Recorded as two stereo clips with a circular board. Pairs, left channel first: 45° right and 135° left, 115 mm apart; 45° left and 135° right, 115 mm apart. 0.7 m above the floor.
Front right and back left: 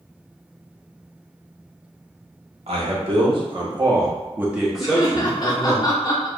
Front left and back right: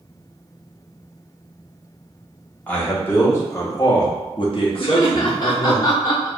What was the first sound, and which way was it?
A man speaking, 120° left.